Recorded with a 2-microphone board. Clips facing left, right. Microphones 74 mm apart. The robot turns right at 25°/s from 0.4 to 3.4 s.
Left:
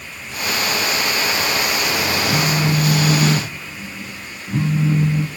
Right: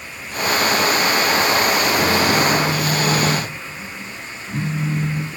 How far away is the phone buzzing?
About 0.5 m.